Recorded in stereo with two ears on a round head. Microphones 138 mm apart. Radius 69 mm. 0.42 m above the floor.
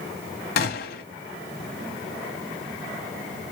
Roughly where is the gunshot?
Left.